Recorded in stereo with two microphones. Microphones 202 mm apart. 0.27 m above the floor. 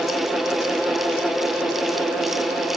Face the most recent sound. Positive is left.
No sound to turn to.